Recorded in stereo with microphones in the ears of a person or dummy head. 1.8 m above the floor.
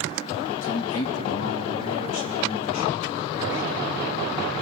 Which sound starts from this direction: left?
A man speaking, at 0.6 s.